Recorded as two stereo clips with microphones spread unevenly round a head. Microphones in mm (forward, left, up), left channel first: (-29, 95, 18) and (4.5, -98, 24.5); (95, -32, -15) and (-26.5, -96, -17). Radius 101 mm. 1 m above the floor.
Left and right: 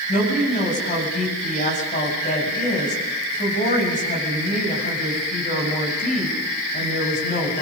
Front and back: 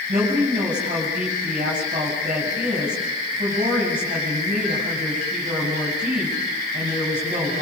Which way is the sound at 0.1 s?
150° left.